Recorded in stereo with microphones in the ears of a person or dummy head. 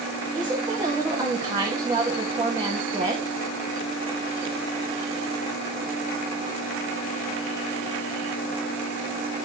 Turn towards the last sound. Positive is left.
turn(degrees=-15)  # may be behind; listen again after turning